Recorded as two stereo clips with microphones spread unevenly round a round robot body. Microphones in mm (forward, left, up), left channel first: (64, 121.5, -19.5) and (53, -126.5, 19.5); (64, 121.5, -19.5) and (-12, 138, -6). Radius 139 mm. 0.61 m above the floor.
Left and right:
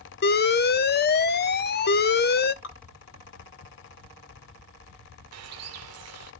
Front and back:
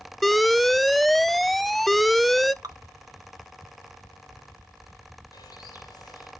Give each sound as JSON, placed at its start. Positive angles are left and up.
{"t": 0.2, "sound": "an alarm", "azimuth_deg": 70, "distance_m": 0.7}
{"t": 2.6, "sound": "dripping", "azimuth_deg": 125, "distance_m": 1.7}
{"t": 5.3, "sound": "a bird", "azimuth_deg": -70, "distance_m": 1.6}